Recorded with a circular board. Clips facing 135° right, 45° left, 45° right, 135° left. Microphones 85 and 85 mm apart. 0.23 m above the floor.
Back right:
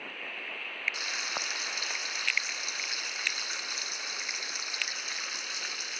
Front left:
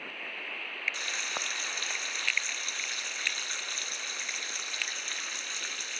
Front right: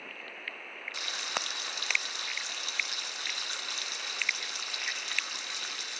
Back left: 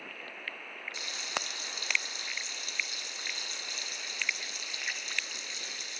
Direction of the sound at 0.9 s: 55° right.